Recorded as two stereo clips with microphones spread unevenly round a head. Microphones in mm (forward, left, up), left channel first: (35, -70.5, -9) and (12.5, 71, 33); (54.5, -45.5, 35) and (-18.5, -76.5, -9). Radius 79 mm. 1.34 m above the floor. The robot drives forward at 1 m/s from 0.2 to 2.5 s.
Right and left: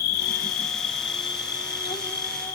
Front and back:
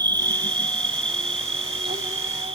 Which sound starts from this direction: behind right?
An insect, at 0.0 s.